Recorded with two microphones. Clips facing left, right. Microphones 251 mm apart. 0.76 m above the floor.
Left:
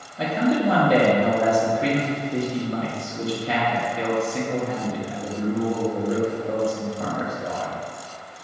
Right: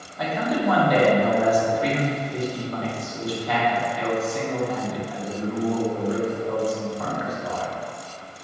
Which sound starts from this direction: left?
A man speaking, at 0.2 s.